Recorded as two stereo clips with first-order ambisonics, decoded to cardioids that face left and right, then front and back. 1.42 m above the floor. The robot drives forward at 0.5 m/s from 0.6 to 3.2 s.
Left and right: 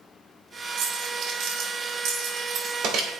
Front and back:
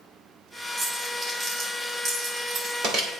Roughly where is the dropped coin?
Right.